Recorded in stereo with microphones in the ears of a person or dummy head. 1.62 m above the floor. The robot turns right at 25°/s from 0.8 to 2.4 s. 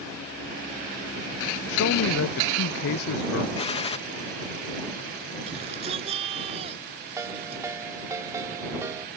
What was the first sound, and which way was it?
A man speaking, 70° left (ahead or behind).